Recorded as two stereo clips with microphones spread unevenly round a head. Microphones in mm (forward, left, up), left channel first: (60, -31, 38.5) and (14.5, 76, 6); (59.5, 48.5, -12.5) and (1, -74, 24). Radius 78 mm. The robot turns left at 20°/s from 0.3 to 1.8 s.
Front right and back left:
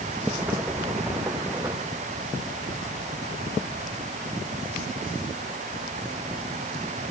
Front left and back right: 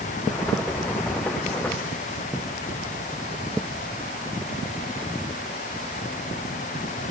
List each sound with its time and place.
Only background noise.